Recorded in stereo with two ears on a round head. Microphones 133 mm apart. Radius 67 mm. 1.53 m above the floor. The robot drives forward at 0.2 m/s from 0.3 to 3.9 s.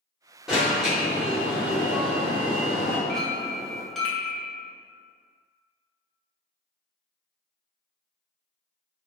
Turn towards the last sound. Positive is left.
turn(degrees=0)  # may be behind; listen again after turning